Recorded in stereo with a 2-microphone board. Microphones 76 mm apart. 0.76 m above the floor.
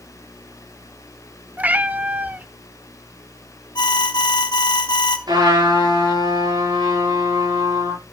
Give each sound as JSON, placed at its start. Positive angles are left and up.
{"t": 1.6, "sound": "a cat meowing", "side_deg": -20, "distance_m": 0.7}
{"t": 3.8, "sound": "an alarm", "side_deg": 75, "distance_m": 1.7}
{"t": 5.3, "sound": "a trumpet", "side_deg": -70, "distance_m": 9.5}